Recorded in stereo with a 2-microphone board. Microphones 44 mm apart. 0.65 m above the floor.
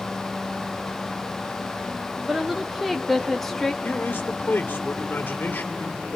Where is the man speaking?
50° left (ahead or behind), 2.5 m.